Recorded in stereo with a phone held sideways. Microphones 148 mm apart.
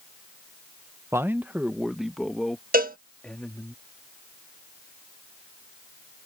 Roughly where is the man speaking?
Centre.